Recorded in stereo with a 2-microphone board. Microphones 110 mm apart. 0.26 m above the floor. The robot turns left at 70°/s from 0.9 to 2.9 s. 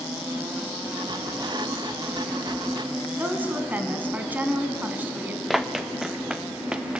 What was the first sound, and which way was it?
A woman speaking, 15° right (ahead or behind).